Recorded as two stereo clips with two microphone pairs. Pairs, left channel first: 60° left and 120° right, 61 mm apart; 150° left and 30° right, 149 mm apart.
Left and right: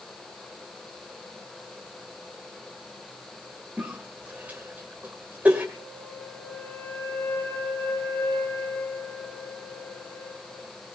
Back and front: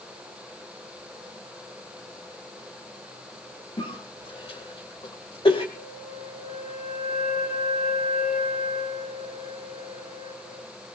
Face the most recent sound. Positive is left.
turn(degrees=110)